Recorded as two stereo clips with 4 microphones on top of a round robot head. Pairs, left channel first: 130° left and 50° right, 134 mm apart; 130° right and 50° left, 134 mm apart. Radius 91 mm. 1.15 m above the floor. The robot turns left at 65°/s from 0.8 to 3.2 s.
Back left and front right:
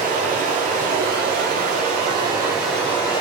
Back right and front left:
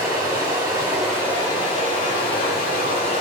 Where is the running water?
20° right, 1.0 m; by 3.2 s 175° right, 1.0 m.